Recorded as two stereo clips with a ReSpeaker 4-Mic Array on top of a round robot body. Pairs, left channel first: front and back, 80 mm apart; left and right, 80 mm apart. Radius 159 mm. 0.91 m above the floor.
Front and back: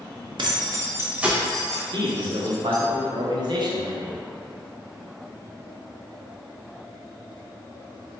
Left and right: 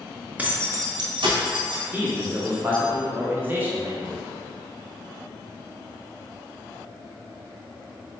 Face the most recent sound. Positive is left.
turn(degrees=-155)